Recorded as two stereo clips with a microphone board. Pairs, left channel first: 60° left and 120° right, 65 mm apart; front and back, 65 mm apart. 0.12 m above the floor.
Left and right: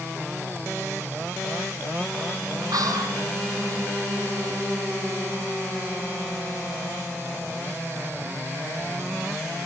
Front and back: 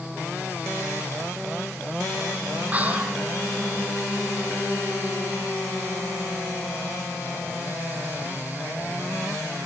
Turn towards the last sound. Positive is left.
turn(degrees=-115)